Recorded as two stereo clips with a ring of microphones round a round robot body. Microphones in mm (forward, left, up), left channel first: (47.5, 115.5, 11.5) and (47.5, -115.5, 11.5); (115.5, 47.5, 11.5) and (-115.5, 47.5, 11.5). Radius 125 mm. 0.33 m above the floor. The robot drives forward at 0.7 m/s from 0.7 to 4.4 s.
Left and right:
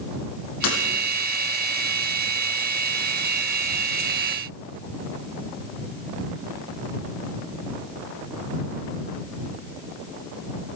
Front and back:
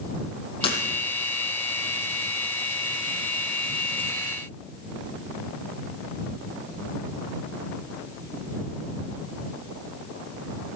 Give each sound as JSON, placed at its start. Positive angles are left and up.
{"t": 0.6, "sound": "breaking glass", "azimuth_deg": 70, "distance_m": 6.5}